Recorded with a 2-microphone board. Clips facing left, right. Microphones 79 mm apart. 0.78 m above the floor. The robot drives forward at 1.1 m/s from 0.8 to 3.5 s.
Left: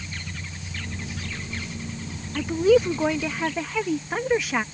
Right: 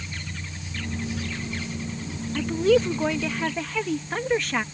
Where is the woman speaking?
5° left (ahead or behind).